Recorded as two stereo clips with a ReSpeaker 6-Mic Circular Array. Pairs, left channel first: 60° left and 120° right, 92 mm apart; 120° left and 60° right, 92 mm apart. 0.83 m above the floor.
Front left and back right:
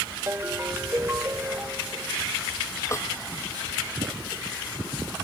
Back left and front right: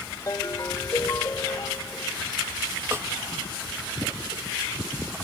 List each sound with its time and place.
0.3 s a ringtone: 175° left
2.9 s a snare drum: straight ahead